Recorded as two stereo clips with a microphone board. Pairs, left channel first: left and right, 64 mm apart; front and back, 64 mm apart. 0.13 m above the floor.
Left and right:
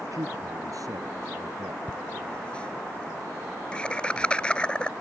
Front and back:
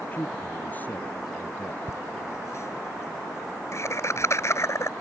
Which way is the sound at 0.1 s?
65° right.